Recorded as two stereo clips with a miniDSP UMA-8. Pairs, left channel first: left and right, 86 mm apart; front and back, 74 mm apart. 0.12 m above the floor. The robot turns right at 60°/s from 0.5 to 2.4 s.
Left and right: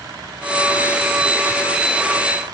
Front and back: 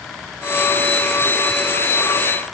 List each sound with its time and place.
Only background noise.